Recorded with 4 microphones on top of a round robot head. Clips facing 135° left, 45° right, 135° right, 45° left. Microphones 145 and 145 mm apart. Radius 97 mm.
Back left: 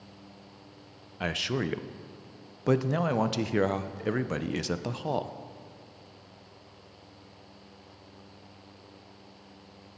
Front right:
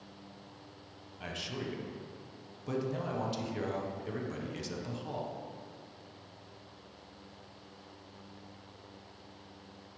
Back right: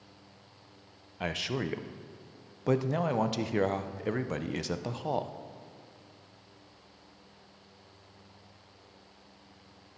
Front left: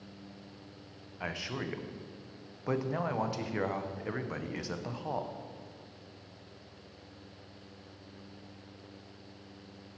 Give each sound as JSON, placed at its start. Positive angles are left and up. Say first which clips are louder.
{"t": 1.2, "sound": "a man speaking", "louder": "back left 9 dB, back right 5 dB", "azimuth_deg": 160, "distance_m": 0.6}